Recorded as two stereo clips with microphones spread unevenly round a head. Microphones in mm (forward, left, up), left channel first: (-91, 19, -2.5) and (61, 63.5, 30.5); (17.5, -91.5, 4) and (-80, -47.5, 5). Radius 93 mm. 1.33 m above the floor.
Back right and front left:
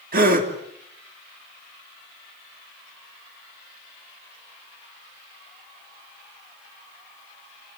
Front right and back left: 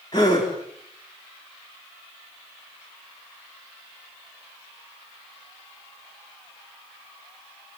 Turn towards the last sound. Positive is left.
turn(degrees=45)